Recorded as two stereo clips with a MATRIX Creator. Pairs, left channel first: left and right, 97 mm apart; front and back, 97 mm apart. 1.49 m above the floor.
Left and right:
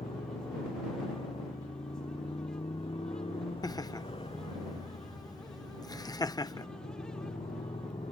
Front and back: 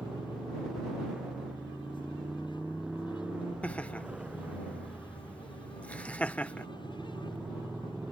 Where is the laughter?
70° left.